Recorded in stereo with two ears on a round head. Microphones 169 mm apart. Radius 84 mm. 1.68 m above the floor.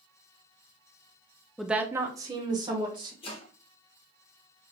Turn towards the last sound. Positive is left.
turn(degrees=35)  # may be behind; listen again after turning